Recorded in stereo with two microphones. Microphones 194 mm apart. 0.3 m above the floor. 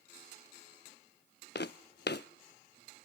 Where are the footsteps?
65° left (ahead or behind), 0.6 m.